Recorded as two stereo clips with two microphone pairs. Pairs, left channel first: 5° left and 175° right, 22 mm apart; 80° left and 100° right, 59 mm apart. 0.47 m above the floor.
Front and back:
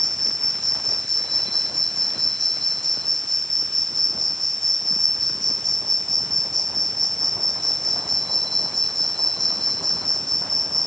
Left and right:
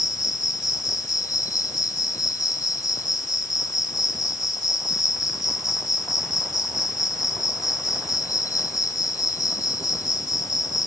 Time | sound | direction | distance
0.0 | an insect | 85° left | ?